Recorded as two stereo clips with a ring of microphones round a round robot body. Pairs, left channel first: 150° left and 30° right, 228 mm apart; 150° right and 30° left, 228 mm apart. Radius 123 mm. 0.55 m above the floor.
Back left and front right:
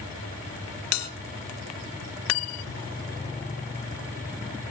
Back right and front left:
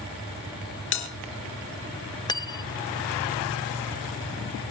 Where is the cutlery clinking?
135° left, 0.7 m.